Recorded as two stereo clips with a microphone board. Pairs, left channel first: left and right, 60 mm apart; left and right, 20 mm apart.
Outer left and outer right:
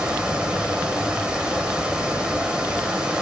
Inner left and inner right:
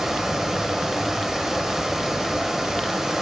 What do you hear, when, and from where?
0.0 s running water: 15° right (ahead or behind), 0.8 m